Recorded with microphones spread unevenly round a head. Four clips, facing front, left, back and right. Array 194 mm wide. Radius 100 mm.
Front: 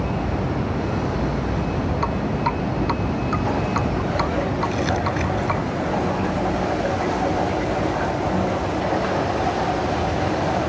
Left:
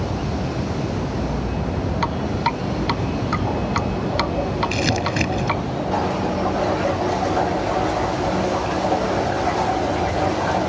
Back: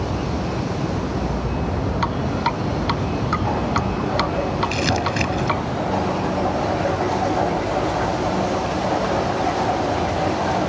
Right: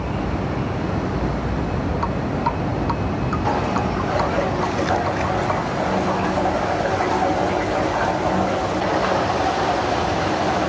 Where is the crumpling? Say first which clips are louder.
Right 1 dB, back 1 dB; 100° left.